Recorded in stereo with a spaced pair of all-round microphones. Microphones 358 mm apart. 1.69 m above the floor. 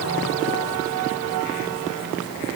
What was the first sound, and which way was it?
Only background noise.